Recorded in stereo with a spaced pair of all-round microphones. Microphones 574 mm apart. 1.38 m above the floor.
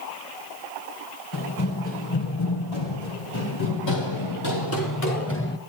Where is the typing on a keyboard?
I don't hear typing on a keyboard.